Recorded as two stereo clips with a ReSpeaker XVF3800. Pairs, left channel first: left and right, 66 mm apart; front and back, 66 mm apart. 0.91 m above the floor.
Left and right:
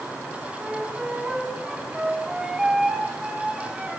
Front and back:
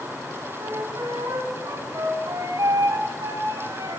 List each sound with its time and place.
0.6 s a flute: 170° right, 4.5 m